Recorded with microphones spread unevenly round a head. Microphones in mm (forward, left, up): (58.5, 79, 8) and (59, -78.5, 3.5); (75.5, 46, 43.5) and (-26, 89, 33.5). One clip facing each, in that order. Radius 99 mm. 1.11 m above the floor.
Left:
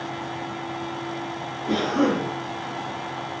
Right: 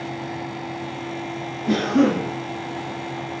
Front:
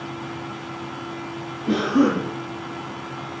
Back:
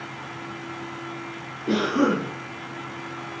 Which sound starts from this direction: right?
A cough, at 1.7 s.